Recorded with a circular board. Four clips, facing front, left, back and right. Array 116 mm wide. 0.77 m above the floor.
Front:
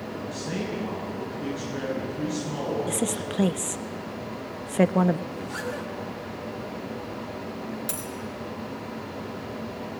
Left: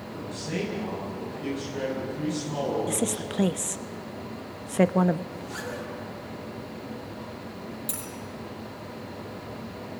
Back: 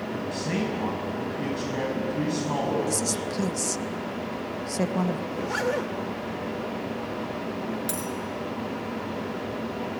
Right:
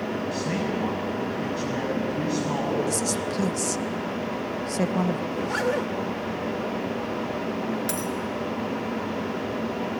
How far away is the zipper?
About 1.3 m.